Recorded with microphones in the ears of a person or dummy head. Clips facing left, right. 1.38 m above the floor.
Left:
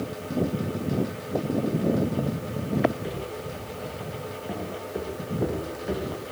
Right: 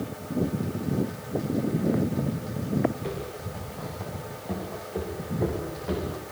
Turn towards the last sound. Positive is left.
turn(degrees=15)  # may be behind; listen again after turning